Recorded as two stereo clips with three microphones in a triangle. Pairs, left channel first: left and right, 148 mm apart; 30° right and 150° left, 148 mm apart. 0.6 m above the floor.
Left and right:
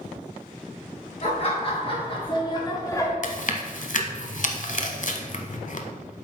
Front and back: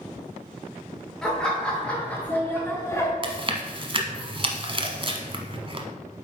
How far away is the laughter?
About 2.5 m.